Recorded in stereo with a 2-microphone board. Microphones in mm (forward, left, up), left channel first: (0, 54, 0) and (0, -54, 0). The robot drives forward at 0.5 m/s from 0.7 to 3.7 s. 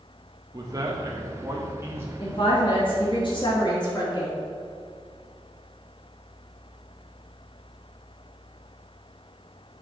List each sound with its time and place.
0.5 s a man speaking: 35° right (ahead or behind), 0.8 m; by 2.1 s 20° right (ahead or behind), 1.2 m
2.2 s a woman speaking: 50° left (ahead or behind), 1.3 m; by 4.4 s 45° left (ahead or behind), 1.4 m